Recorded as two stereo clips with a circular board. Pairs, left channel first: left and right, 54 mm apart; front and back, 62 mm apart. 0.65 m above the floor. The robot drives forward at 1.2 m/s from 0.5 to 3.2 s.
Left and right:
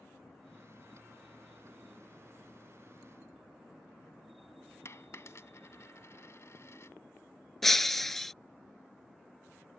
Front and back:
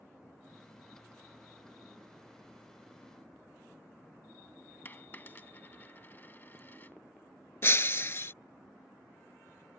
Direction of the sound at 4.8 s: 55° left.